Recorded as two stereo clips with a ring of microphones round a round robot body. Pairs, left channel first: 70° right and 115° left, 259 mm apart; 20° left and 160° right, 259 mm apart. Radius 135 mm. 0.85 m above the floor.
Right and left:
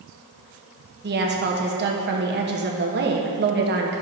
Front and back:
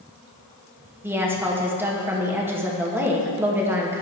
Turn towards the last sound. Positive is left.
turn(degrees=125)